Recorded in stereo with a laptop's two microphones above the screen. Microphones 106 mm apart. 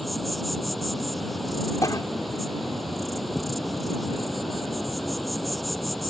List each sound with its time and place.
0.0 s an insect: centre (ahead or behind)
1.8 s a cough: 35° left (ahead or behind)